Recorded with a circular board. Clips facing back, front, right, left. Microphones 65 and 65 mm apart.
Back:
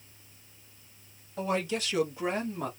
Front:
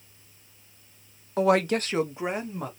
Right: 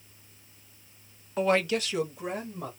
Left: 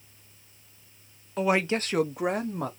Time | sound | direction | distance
1.4 | a woman speaking | 5° right | 0.5 m